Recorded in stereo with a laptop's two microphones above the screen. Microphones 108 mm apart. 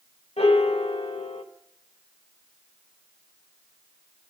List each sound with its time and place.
0.4 s a piano: 70° left (ahead or behind), 1.2 m